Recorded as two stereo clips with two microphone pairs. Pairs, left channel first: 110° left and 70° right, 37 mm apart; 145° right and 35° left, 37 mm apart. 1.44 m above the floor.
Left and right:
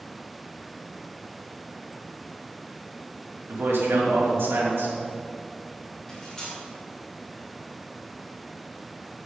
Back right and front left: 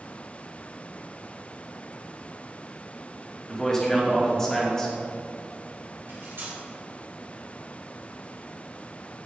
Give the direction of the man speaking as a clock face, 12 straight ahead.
2 o'clock.